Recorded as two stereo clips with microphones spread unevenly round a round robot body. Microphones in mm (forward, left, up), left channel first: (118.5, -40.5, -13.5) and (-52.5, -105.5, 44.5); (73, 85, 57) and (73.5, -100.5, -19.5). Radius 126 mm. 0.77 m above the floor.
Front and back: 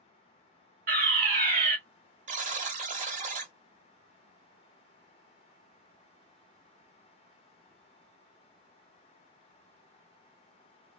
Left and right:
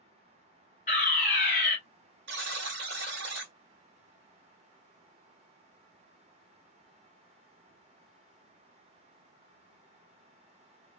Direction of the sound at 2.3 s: 150° right.